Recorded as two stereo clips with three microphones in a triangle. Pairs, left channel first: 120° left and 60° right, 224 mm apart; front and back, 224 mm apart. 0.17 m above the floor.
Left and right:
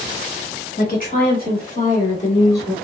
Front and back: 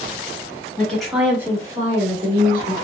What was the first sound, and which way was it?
A woman speaking, 85° left.